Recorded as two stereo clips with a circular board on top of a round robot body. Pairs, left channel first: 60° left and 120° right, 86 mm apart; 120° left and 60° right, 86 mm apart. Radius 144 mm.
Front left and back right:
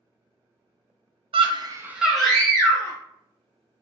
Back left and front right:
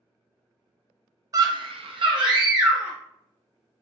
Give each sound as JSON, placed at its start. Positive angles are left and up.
{"t": 1.3, "sound": "a scream", "azimuth_deg": -110, "distance_m": 0.6}